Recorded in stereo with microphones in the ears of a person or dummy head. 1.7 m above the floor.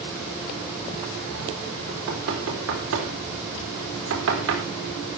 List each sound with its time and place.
1.9 s knocking: 80° right, 4 m